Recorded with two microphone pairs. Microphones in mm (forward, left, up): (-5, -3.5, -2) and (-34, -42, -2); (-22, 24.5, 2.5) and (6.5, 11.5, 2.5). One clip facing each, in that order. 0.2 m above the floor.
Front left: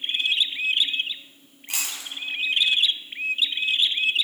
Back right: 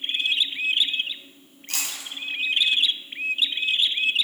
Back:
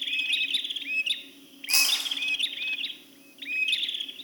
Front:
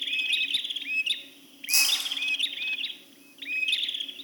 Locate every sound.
1.7 s chewing: 120° left, 2.5 m